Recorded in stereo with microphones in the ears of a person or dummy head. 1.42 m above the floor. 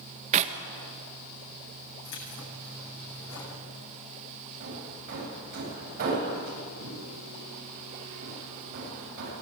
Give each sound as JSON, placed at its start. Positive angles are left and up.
{"t": 0.3, "sound": "a clap", "side_deg": -40, "distance_m": 1.6}
{"t": 2.0, "sound": "keys jangling", "side_deg": 65, "distance_m": 8.5}
{"t": 4.6, "sound": "hammering", "side_deg": -55, "distance_m": 8.5}